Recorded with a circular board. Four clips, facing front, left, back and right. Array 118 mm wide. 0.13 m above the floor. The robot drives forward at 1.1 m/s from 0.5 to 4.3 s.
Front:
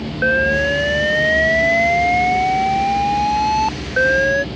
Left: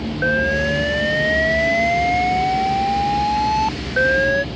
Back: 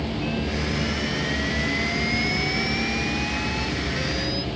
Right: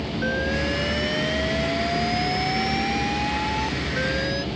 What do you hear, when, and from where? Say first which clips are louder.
0.2 s an alarm: left 7 dB, front 15 dB; 25° left; by 4.5 s 35° left